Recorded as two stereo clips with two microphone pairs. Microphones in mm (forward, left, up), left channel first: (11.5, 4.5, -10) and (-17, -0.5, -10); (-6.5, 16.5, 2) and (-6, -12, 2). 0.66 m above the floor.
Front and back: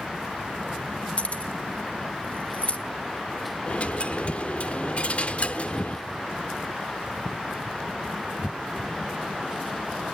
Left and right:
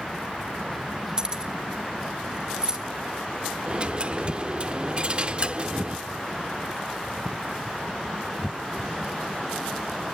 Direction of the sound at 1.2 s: 25° right.